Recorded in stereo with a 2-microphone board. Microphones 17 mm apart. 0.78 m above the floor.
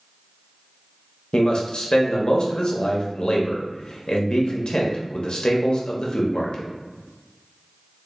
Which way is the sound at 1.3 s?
60° left (ahead or behind).